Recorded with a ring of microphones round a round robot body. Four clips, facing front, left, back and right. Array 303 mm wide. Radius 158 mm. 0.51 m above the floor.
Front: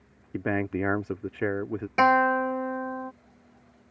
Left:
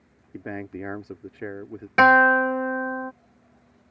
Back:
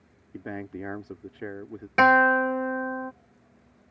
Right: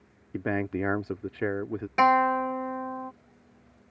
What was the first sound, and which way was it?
A man speaking, 35° right.